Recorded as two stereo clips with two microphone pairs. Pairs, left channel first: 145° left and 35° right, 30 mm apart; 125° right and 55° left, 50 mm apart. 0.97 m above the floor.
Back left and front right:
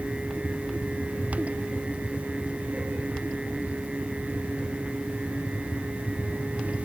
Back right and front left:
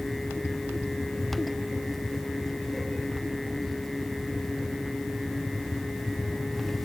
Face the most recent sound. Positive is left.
No sound to turn to.